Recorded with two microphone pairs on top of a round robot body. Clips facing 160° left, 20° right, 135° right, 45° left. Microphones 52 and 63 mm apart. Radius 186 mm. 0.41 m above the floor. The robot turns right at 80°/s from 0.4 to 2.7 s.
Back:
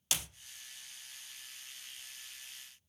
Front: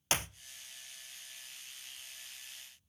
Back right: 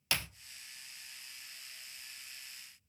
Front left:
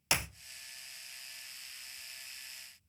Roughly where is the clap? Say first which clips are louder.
Front 5 dB, front left 3 dB; ahead right.